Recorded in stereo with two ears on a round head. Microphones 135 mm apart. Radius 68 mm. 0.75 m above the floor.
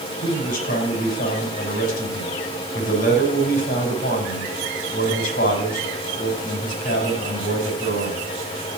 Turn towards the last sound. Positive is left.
turn(degrees=65)  # may be behind; listen again after turning